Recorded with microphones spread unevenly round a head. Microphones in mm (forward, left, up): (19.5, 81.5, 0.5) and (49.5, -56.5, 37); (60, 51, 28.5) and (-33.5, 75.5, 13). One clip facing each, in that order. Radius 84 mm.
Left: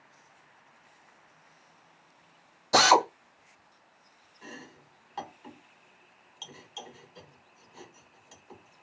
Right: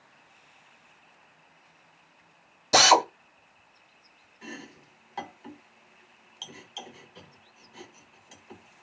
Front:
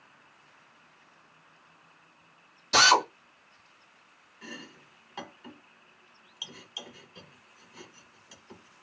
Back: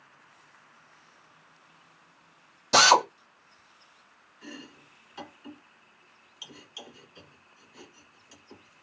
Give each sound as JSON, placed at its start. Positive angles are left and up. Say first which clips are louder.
{"t": 2.7, "sound": "a drill", "louder": "right 1 dB, back 2 dB", "azimuth_deg": -155, "distance_m": 0.9}
{"t": 4.4, "sound": "chopping", "louder": "right 4 dB, back 1 dB", "azimuth_deg": 5, "distance_m": 1.4}